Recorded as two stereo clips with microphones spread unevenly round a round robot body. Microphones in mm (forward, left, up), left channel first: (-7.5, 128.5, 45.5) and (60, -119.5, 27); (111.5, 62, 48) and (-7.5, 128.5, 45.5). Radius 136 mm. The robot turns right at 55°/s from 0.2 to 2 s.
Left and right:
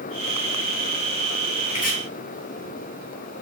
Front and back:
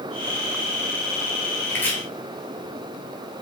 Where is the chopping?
40° left, 3.5 m; by 1.9 s 55° left, 3.5 m.